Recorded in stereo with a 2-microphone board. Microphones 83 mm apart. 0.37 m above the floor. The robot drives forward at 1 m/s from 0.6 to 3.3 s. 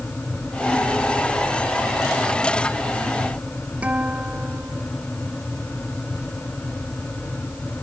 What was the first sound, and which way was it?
A guitar, 15° right (ahead or behind).